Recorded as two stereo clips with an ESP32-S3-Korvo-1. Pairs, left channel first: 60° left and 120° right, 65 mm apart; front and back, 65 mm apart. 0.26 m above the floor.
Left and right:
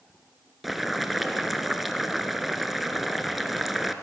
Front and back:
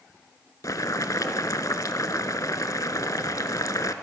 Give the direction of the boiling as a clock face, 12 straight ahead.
1 o'clock.